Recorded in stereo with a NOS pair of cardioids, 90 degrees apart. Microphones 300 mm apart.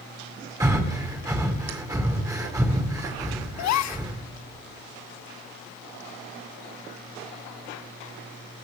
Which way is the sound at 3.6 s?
65° left.